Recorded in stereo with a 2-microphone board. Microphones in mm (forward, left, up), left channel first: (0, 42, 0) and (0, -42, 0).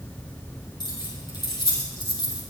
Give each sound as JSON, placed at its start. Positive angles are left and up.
{"t": 0.8, "sound": "keys jangling", "side_deg": 60, "distance_m": 6.0}